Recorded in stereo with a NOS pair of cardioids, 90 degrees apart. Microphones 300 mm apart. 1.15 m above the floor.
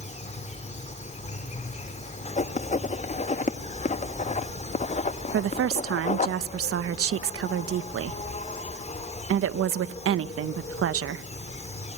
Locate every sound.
0.0 s an insect: 25° left, 1.8 m
2.4 s writing: 25° left, 1.1 m
5.3 s a woman speaking: 50° right, 1.2 m